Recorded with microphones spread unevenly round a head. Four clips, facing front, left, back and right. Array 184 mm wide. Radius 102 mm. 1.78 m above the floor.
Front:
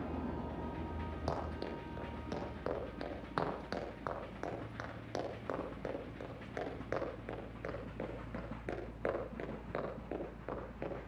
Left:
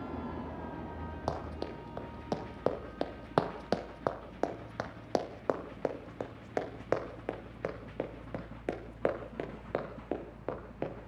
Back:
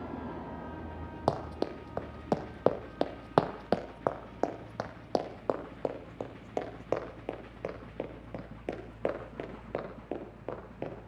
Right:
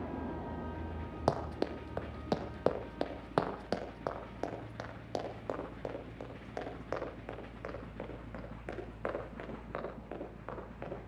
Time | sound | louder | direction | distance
1.3 | running footsteps | right 5 dB, back 9 dB | 145° right | 3.5 m